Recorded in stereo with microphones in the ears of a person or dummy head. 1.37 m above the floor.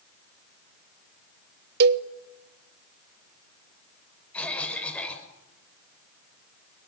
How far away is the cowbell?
About 0.9 m.